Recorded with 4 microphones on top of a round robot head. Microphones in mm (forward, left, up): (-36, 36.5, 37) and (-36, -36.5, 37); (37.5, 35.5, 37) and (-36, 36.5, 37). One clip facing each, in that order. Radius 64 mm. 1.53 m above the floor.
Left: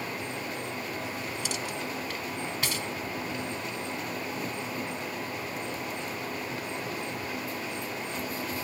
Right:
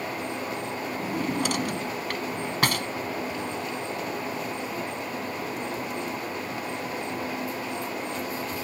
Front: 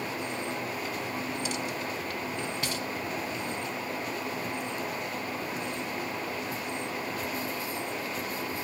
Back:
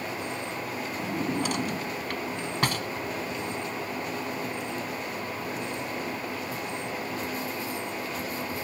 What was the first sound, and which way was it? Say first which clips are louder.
A drawer: right 7 dB, back 4 dB; 125° right.